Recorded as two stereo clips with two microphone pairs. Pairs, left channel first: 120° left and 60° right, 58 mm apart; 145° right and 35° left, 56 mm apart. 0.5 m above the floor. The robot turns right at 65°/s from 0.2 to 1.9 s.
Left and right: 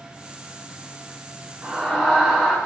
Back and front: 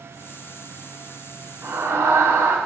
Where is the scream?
Straight ahead, 7 m; by 2.6 s 20° left, 7 m.